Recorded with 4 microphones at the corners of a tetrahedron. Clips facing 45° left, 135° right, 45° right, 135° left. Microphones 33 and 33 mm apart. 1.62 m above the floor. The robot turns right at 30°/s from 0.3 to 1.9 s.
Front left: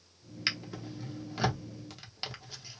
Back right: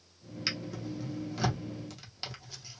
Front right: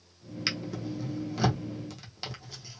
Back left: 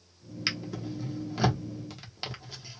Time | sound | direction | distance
0.5 | a drawer | 55° left | 0.7 m